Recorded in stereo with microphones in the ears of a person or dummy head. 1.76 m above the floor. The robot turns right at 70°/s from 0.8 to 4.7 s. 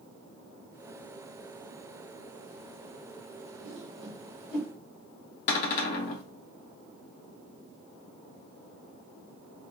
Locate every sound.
3.6 s a whoosh: 50° right (ahead or behind), 0.9 m; by 4.7 s 5° left (ahead or behind), 0.9 m
5.5 s a cupboard door: 45° left (ahead or behind), 0.8 m